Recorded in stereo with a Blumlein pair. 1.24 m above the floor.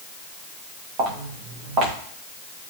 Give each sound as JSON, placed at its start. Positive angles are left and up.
{"t": 1.0, "sound": "footsteps", "azimuth_deg": -35, "distance_m": 7.0}